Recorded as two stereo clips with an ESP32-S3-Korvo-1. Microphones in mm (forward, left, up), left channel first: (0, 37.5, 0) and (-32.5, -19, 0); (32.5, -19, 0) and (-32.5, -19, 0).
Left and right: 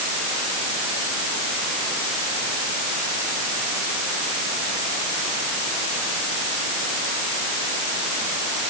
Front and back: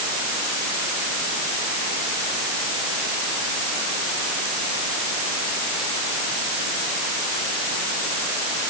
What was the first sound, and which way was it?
Only background noise.